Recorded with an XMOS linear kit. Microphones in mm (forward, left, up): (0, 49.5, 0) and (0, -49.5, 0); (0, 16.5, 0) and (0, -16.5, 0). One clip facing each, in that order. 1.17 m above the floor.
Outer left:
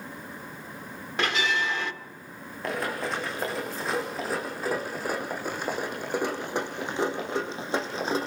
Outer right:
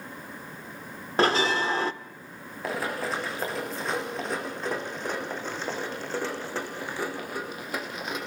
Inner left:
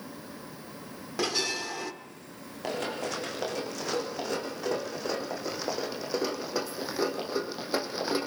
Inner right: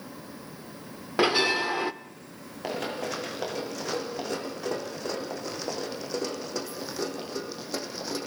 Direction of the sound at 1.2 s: 35° right (ahead or behind).